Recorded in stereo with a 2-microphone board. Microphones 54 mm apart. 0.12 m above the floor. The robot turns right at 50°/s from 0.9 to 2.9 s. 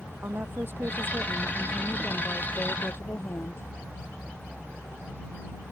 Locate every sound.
0.2 s a woman speaking: 45° right; by 3.6 s 55° left